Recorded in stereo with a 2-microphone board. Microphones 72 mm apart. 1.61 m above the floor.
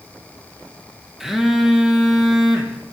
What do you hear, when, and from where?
1.2 s a phone buzzing: 5° right (ahead or behind), 2.0 m